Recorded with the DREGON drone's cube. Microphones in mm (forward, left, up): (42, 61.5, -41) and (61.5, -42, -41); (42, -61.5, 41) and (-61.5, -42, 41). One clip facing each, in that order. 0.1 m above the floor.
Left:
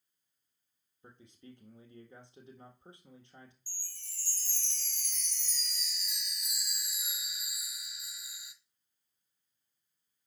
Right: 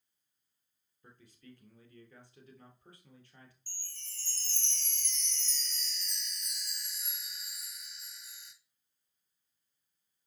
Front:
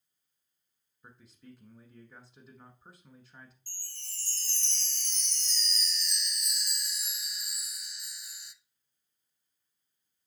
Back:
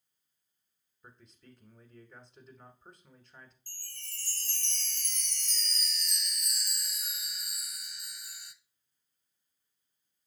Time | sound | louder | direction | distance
1.0 | a man speaking | left 2 dB, front 3 dB | 70° left | 1.1 m
3.7 | a chime | right 1 dB, back 2 dB | 175° left | 0.6 m